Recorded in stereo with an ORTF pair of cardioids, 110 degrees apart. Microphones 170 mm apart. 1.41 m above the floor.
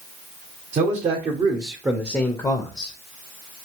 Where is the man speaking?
50° right, 1.0 m; by 3.0 s 40° left, 0.7 m.